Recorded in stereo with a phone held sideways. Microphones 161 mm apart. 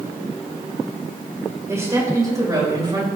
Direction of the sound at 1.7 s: 20° right (ahead or behind).